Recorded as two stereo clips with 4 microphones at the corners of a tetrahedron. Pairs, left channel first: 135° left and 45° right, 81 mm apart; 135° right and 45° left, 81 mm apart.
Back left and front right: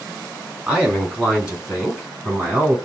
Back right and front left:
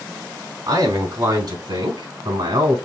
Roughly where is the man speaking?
Ahead left.